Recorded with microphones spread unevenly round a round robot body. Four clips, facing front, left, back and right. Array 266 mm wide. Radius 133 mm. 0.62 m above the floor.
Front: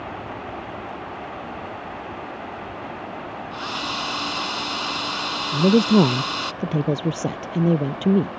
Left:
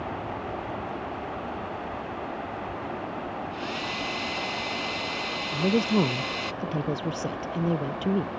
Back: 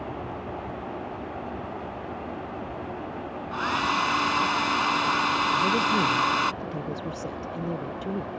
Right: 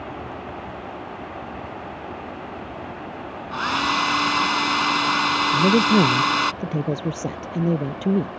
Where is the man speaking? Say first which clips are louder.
Right 5 dB, front 13 dB; 25° right.